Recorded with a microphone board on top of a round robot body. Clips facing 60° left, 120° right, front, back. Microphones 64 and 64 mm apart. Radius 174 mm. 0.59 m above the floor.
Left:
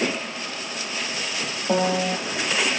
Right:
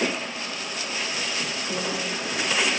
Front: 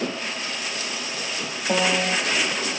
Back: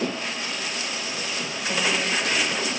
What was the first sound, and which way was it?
A piano, 50° left.